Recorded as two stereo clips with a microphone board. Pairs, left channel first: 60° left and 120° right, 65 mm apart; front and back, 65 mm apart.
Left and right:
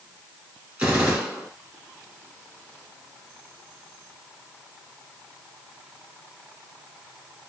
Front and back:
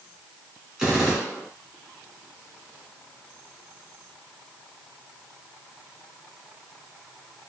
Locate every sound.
0.8 s a gunshot: 105° right, 1.3 m